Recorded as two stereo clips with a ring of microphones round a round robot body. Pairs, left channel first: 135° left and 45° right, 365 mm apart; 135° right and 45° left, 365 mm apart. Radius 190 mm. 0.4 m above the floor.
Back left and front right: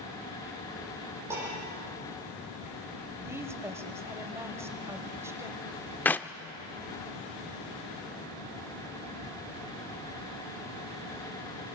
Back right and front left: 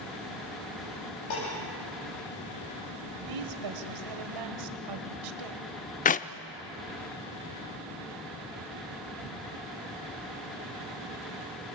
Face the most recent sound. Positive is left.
turn(degrees=-150)